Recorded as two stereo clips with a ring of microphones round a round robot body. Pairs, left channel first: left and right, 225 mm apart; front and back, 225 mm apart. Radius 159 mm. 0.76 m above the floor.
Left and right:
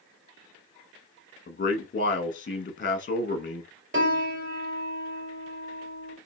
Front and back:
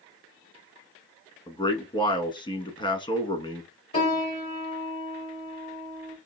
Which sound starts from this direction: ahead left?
A man speaking, at 1.5 s.